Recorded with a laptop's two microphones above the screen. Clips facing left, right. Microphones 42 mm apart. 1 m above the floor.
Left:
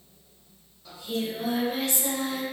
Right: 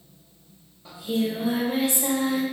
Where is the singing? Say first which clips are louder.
Right 5 dB; 20° right (ahead or behind), 0.9 m.